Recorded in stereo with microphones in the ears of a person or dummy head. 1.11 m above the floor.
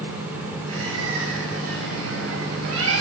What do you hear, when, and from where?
0.7 s a bird: 85° right, 7 m